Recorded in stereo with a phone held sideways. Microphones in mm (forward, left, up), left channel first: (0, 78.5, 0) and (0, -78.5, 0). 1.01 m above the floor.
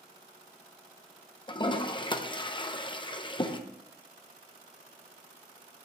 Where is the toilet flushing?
30° left (ahead or behind), 0.6 m.